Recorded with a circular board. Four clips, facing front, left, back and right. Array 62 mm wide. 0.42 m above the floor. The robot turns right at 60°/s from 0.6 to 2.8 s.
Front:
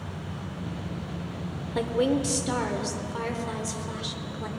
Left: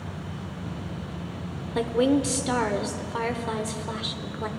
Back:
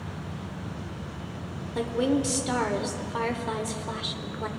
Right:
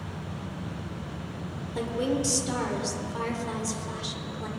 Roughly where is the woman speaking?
Ahead left.